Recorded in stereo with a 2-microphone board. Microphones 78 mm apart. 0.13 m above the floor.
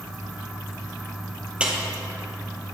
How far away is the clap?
About 3 m.